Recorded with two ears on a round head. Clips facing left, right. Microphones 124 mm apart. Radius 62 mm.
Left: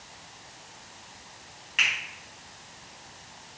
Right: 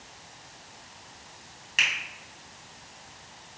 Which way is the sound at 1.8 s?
50° right (ahead or behind).